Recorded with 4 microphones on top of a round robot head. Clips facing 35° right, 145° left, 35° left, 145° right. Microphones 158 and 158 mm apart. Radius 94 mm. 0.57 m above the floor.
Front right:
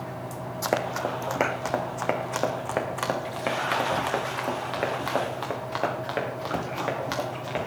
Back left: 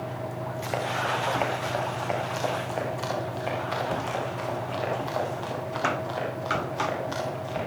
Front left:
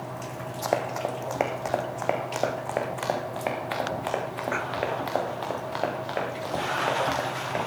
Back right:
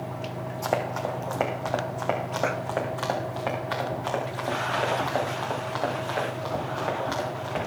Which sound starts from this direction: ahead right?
Running footsteps, at 0.6 s.